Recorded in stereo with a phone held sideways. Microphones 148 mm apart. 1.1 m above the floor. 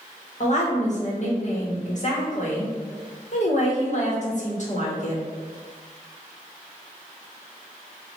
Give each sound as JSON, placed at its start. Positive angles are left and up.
{"t": 0.4, "sound": "a woman speaking", "side_deg": 55, "distance_m": 1.4}